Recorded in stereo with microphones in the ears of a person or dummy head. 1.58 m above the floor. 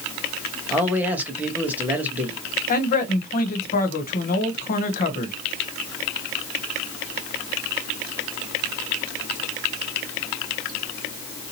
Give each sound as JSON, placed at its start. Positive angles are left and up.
{"t": 0.7, "sound": "a man speaking", "side_deg": -10, "distance_m": 1.1}
{"t": 2.7, "sound": "a man speaking", "side_deg": 45, "distance_m": 0.9}